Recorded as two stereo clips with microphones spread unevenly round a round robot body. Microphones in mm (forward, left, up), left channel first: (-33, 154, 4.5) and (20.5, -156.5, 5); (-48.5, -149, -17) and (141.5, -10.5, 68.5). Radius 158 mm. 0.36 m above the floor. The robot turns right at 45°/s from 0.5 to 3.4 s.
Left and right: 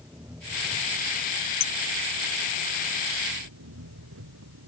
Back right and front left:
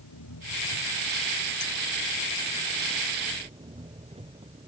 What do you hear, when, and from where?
0.0 s an engine running: 160° right; by 4.7 s 30° right
1.6 s a clink: 130° left; by 1.7 s 135° left